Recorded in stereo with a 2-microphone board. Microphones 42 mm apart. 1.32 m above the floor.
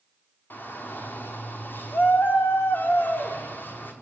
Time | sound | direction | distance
0.5 | a shout | 50° left (ahead or behind) | 4.5 m